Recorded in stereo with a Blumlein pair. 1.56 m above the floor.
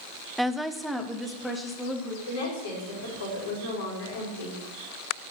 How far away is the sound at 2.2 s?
About 4.5 m.